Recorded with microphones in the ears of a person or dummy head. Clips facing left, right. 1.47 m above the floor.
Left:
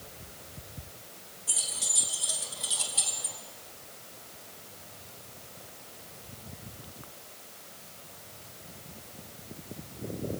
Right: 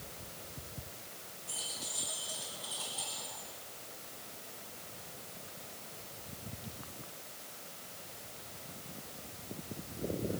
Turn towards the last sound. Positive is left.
turn(degrees=75)  # may be behind; listen again after turning